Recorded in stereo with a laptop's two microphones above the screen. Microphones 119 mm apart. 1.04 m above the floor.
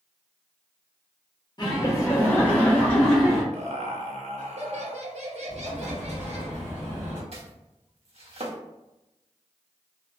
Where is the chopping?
60° right (ahead or behind), 0.7 m.